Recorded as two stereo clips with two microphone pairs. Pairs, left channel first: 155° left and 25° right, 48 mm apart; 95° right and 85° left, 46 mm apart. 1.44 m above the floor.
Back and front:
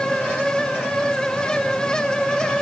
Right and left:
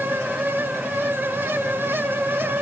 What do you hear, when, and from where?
Only background noise.